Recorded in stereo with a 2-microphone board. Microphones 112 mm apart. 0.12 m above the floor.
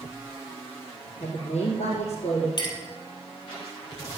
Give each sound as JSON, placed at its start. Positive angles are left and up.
{"t": 1.2, "sound": "a woman speaking", "side_deg": 75, "distance_m": 5.0}
{"t": 2.6, "sound": "a clink", "side_deg": 40, "distance_m": 2.5}